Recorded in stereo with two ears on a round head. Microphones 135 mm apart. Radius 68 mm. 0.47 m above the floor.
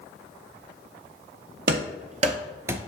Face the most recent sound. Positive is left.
turn(degrees=-10)  # may be behind; listen again after turning